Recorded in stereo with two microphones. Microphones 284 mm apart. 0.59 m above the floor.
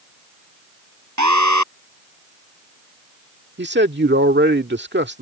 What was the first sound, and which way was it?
An alarm, 85° right.